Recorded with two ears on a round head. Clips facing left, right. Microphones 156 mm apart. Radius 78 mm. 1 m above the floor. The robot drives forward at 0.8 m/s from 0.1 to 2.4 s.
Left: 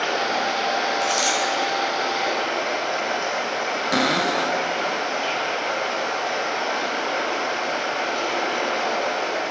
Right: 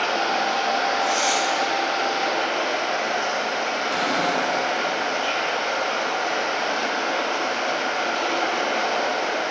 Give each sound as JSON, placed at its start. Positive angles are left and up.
{"t": 0.0, "sound": "running water", "side_deg": 15, "distance_m": 2.0}
{"t": 1.0, "sound": "a dropped coin", "side_deg": 80, "distance_m": 3.5}
{"t": 3.9, "sound": "a cupboard door", "side_deg": 75, "distance_m": 0.7}